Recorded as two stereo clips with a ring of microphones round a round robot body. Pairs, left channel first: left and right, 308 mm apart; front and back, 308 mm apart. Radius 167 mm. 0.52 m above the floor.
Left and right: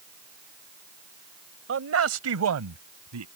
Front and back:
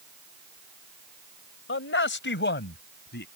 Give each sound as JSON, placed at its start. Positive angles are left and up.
{"t": 1.7, "sound": "a man speaking", "azimuth_deg": -50}